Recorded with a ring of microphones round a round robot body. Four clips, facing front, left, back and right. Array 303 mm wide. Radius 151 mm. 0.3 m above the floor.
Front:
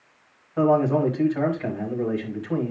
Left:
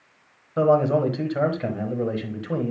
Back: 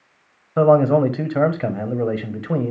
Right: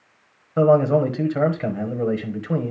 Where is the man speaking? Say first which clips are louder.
Right 3 dB, back 6 dB; 170° right, 1.3 m.